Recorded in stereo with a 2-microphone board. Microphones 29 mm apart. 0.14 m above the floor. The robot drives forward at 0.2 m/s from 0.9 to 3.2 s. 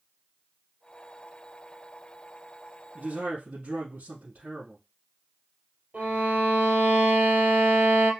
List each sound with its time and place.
3.0 s a man speaking: 65° right (ahead or behind), 2.5 m
5.9 s a violin: 55° right (ahead or behind), 3 m